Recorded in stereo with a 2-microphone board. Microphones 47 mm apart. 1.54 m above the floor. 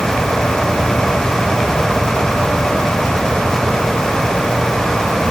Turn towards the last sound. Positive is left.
No sound to turn to.